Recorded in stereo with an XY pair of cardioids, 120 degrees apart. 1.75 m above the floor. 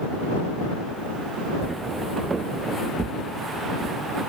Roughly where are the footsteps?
Ahead.